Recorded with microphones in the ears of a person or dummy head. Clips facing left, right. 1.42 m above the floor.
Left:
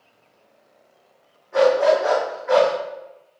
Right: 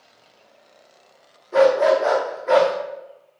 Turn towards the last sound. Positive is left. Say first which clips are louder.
# right 1 dB
turn(degrees=-45)  # may be behind; listen again after turning